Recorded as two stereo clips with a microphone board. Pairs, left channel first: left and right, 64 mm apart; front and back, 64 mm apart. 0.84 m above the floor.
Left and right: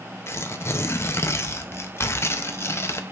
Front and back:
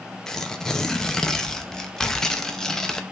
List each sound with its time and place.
0.3 s tearing paper: 75° left, 0.7 m